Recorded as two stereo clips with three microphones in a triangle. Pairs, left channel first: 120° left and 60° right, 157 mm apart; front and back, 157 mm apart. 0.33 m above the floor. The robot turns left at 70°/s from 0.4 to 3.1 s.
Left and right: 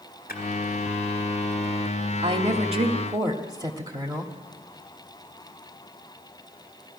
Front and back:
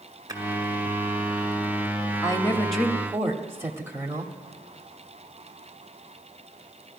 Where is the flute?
No flute in this recording.